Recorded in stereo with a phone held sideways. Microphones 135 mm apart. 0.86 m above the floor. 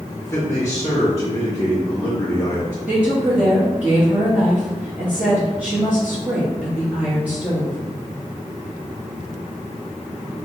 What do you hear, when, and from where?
0.2 s a man speaking: 15° left (ahead or behind), 0.8 m; by 2.8 s 20° left (ahead or behind), 2.0 m
2.9 s a woman speaking: 10° right (ahead or behind), 1.3 m